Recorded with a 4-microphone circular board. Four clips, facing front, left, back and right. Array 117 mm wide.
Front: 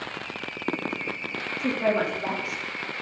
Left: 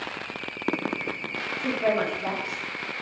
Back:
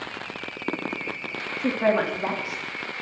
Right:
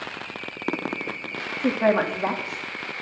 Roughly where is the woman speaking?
Right.